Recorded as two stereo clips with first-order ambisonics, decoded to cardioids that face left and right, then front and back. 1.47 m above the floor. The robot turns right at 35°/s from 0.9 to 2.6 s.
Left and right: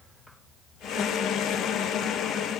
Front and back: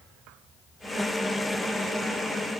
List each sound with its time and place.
Only background noise.